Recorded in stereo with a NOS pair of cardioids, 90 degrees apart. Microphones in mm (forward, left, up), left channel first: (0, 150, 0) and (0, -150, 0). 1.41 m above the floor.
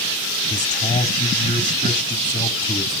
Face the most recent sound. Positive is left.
turn(degrees=25)